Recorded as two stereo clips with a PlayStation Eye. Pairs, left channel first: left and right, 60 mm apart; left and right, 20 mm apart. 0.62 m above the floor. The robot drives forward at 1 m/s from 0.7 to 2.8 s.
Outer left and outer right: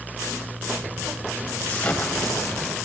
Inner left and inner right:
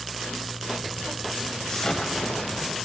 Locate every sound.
1.7 s an explosion: 25° left (ahead or behind), 2.5 m; by 2.8 s 15° left (ahead or behind), 3.5 m